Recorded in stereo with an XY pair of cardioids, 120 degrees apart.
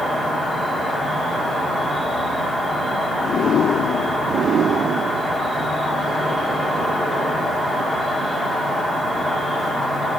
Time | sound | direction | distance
0.0 | an insect | 5° right | 2.5 m